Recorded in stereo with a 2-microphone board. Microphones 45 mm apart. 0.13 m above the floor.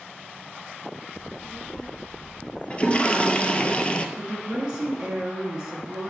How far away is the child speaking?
About 1.7 m.